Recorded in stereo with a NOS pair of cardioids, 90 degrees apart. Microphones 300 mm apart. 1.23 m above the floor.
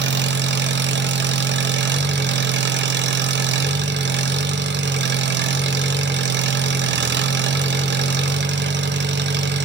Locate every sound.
0.0 s an engine running: 35° right, 1.1 m